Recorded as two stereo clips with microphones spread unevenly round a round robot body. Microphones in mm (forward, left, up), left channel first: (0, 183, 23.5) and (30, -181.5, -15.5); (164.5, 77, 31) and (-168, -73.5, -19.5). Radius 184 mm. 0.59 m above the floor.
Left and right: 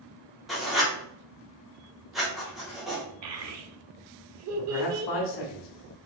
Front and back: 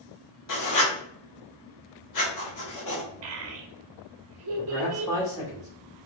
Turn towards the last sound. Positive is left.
turn(degrees=100)